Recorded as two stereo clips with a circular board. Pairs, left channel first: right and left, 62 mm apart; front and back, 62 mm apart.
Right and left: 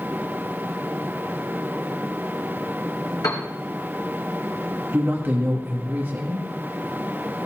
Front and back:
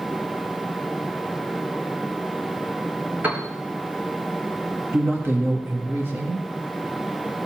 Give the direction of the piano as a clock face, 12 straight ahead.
4 o'clock.